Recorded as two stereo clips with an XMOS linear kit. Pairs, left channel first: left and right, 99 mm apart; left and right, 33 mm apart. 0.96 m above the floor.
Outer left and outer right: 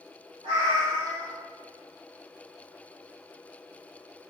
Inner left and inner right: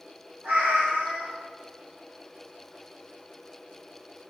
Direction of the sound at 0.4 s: 70° right (ahead or behind).